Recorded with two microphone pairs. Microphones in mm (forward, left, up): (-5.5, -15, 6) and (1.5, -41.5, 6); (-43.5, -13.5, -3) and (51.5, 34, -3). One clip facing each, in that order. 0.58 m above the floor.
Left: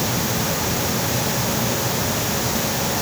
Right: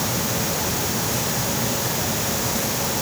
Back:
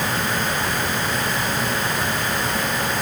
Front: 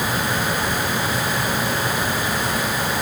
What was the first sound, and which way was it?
Only background noise.